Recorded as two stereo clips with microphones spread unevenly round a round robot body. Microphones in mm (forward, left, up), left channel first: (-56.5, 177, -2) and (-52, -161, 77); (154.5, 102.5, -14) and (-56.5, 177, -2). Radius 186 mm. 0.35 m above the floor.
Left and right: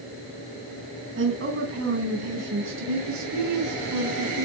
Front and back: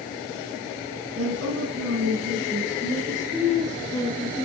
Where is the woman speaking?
150° right, 4.5 m; by 4.5 s 120° right, 5.5 m.